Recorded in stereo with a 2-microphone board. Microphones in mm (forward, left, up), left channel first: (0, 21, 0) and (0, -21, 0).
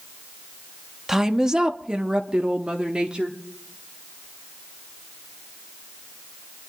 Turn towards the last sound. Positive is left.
turn(degrees=-25)  # may be behind; listen again after turning